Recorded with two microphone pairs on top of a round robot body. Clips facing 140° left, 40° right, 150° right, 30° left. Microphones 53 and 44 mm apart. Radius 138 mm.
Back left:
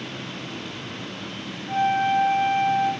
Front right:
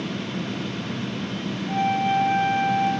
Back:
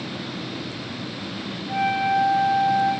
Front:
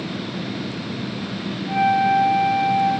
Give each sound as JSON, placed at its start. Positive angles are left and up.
{"t": 1.7, "sound": "a flute", "azimuth_deg": 75, "distance_m": 5.5}